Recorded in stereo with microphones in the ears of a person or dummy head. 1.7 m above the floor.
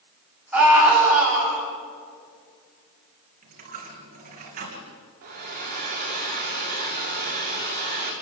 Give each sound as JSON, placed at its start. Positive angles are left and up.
{"t": 0.5, "sound": "a scream", "side_deg": 0, "distance_m": 8.5}
{"t": 3.4, "sound": "a dropped coin", "side_deg": -40, "distance_m": 3.5}
{"t": 5.2, "sound": "a hair dryer", "side_deg": -45, "distance_m": 5.5}